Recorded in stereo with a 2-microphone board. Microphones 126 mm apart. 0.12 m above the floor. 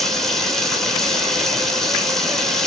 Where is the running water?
5° left (ahead or behind), 0.8 m.